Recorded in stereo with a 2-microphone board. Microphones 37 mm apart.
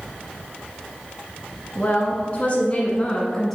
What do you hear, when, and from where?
1.8 s a woman speaking: 40° left (ahead or behind), 1.6 m; by 3.6 s 10° left (ahead or behind), 1.2 m